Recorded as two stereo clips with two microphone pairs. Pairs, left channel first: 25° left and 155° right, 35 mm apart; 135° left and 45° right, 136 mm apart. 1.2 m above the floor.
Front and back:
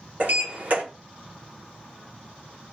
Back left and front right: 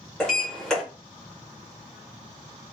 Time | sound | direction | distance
0.2 | a sliding door | 135° right | 1.3 m